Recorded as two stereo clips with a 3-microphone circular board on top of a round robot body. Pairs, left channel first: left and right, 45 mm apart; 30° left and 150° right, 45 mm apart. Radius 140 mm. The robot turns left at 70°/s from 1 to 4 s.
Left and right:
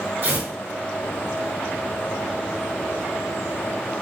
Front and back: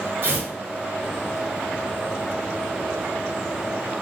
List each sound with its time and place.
0.2 s tearing paper: 115° right, 1.4 m